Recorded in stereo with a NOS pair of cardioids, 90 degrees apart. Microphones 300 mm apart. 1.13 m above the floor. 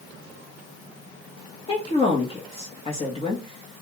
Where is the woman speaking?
20° left, 1.4 m.